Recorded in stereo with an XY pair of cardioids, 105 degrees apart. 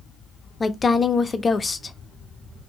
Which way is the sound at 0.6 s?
25° left.